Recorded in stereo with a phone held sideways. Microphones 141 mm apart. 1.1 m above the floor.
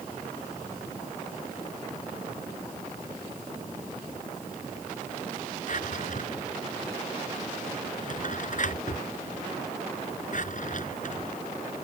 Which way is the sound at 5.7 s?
60° left (ahead or behind).